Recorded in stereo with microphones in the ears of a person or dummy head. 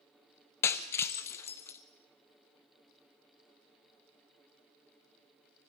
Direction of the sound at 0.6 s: 15° left (ahead or behind).